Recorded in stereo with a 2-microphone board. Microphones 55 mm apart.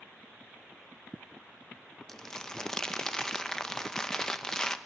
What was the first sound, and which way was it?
Crumpling, 15° left (ahead or behind).